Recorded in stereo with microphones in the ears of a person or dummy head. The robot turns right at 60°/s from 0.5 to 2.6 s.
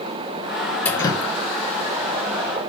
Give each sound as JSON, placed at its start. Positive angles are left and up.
{"t": 0.8, "sound": "dripping", "side_deg": 10, "distance_m": 0.5}